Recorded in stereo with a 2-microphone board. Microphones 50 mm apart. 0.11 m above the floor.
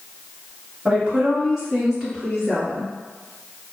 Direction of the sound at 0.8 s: 25° right (ahead or behind).